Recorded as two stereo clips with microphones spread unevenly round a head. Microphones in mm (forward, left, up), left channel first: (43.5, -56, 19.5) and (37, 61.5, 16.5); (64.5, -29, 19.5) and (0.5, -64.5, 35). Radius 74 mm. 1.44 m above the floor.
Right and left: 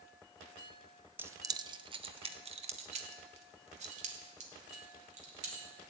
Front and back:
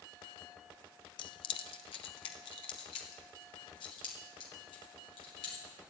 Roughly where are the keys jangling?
Ahead.